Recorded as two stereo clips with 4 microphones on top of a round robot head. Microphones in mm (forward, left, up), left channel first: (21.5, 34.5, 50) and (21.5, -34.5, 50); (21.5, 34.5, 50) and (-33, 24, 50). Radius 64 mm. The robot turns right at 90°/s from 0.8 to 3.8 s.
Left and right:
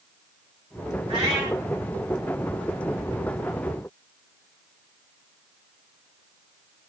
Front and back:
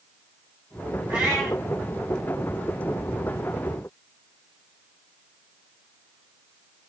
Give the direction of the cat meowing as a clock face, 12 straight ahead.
4 o'clock.